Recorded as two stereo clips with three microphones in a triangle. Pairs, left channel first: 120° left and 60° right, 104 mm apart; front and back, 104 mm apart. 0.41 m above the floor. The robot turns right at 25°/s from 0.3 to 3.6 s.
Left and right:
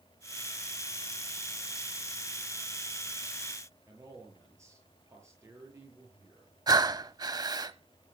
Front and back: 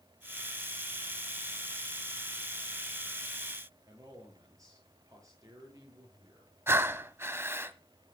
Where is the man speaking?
125° right, 7 m.